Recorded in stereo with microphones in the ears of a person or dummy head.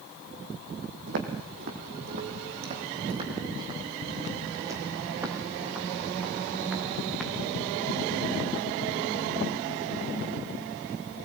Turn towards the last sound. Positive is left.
turn(degrees=5)  # may be behind; listen again after turning